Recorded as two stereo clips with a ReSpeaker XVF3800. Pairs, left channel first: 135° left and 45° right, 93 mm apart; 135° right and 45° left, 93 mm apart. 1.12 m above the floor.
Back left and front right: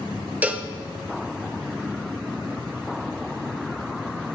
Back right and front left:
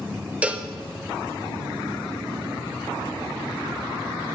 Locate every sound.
0.4 s a cowbell: 5° right, 0.7 m